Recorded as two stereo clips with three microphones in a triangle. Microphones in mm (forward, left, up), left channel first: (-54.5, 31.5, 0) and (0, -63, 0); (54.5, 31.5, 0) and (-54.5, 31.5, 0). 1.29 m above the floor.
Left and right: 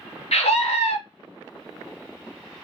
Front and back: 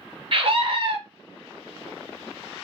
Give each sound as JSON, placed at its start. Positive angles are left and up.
{"t": 0.3, "sound": "a scream", "azimuth_deg": 145, "distance_m": 1.1}